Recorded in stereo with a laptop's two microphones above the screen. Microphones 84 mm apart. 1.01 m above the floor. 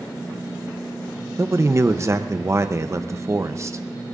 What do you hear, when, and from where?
1.4 s a man speaking: 35° right (ahead or behind), 0.6 m